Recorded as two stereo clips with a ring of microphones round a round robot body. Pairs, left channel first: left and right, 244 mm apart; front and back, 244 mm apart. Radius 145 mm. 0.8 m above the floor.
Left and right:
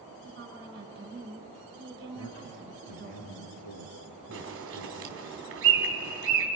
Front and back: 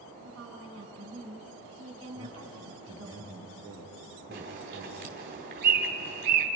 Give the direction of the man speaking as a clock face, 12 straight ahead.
8 o'clock.